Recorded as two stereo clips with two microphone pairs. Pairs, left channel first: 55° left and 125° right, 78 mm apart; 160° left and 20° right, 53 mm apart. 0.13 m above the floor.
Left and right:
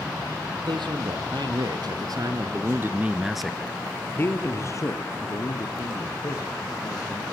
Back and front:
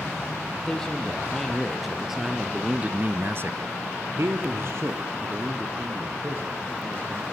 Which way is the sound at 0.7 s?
125° right.